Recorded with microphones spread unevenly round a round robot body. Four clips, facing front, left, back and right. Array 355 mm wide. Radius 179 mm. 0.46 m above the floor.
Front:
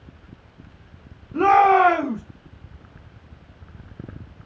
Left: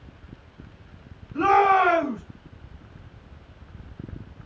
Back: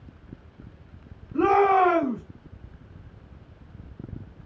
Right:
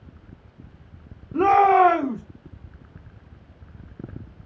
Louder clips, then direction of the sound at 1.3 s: Right 2 dB, front 4 dB; 65° right.